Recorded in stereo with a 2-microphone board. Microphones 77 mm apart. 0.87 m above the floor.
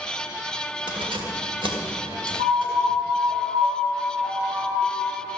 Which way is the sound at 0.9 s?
80° right.